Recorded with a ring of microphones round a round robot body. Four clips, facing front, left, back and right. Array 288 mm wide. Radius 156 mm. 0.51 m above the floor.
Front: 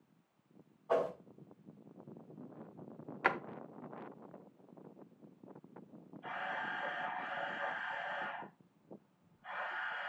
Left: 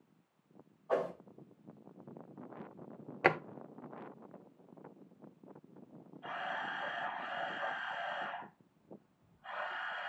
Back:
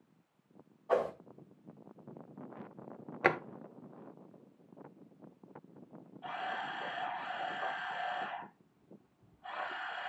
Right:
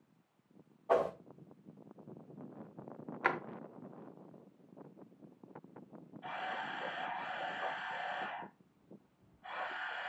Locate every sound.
0.9 s a whoosh: 100° right, 5.5 m
3.2 s a drawer: 130° left, 0.6 m
6.2 s a camera shutter: 155° right, 6 m